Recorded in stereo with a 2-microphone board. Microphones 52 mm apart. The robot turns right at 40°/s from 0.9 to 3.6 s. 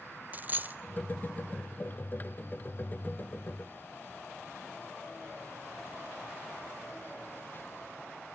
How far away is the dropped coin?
About 0.5 m.